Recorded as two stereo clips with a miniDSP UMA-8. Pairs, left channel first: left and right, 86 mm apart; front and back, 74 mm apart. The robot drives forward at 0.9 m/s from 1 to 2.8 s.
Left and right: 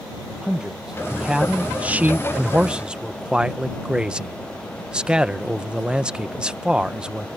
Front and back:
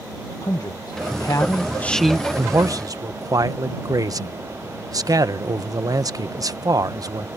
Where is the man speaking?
10° right; by 7.3 s 170° right.